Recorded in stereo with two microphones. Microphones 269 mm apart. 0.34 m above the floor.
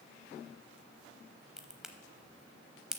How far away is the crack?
About 0.7 m.